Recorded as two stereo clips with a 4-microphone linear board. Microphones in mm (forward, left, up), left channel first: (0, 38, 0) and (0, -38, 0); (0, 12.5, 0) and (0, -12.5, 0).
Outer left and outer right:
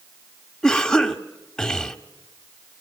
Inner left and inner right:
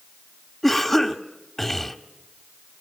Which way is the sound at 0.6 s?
10° left (ahead or behind).